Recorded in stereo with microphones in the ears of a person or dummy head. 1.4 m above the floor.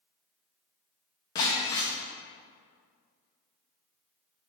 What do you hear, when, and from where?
1.4 s breaking glass: 20° left (ahead or behind), 0.7 m